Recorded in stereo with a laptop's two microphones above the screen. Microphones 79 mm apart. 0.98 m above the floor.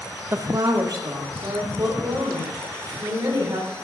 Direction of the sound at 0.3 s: 35° right (ahead or behind).